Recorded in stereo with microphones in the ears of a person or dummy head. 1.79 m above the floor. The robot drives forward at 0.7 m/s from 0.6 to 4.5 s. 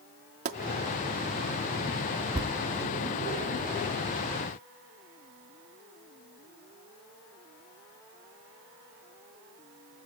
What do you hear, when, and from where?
0.5 s a pop: 40° right (ahead or behind), 1.0 m
2.3 s a thud: 20° right (ahead or behind), 1.6 m